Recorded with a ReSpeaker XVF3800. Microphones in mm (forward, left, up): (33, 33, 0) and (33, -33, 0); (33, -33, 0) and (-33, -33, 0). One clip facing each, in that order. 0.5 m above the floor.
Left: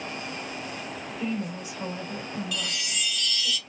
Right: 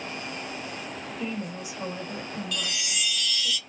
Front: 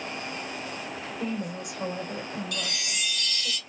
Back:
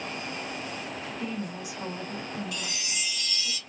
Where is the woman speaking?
5° right, 2.5 m.